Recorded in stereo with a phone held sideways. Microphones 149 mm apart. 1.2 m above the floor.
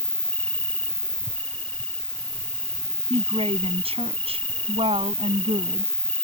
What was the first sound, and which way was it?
An insect, 10° left (ahead or behind).